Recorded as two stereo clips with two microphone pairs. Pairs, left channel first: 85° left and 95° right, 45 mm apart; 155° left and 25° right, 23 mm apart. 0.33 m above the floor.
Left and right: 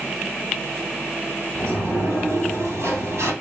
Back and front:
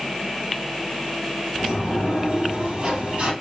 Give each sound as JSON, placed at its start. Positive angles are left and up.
{"t": 1.6, "sound": "a sliding door", "azimuth_deg": -80, "distance_m": 2.5}